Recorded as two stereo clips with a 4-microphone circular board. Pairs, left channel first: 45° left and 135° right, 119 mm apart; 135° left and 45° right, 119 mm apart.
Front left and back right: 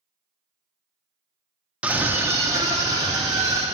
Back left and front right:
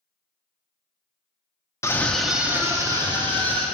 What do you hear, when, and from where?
1.8 s a scream: 160° left, 0.6 m; by 3.7 s 80° right, 1.2 m